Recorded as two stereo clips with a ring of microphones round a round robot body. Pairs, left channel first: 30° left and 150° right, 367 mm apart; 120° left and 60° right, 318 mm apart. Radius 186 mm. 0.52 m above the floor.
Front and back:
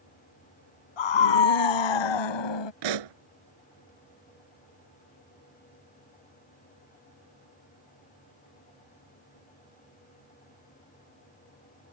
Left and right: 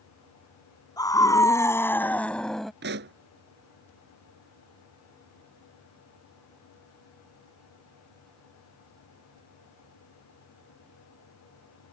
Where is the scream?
40° left; by 2.7 s 30° left.